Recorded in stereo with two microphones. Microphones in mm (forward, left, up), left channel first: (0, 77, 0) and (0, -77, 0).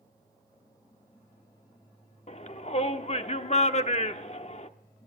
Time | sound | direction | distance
2.3 | a shout | 45° left (ahead or behind) | 0.8 m